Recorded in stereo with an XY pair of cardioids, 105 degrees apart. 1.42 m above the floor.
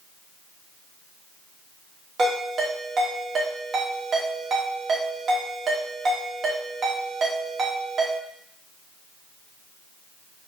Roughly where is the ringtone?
Ahead right.